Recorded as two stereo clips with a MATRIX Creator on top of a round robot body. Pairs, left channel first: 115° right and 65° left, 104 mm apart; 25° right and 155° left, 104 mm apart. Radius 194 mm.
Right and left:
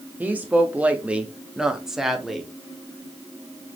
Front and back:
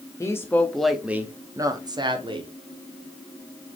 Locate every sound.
0.2 s a woman speaking: 5° left, 1.0 m; by 2.5 s 155° left, 1.4 m